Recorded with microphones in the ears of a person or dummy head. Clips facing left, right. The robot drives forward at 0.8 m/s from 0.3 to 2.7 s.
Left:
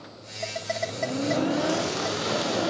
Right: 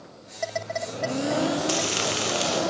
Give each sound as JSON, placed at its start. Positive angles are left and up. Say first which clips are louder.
{"t": 1.7, "sound": "frying", "louder": "left 1 dB", "side_deg": -45, "distance_m": 0.9}